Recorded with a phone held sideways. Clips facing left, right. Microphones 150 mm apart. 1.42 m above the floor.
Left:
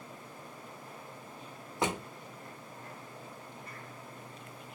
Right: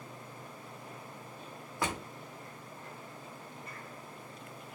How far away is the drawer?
About 0.5 m.